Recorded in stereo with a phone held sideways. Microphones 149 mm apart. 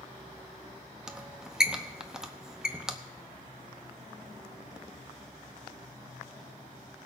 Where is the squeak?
5° right (ahead or behind), 0.8 m.